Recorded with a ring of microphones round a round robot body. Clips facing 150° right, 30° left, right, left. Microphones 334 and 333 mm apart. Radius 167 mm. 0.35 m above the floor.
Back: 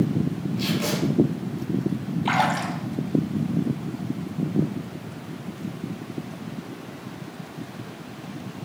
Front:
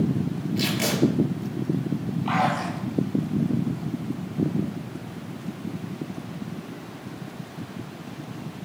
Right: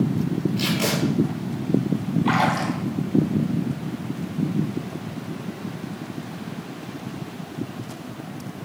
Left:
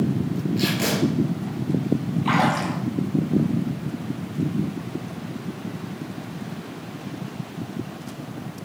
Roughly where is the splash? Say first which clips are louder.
Even, even; behind.